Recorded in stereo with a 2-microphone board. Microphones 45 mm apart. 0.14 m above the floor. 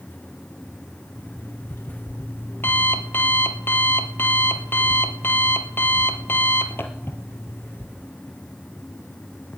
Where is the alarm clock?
55° left (ahead or behind), 1.9 m.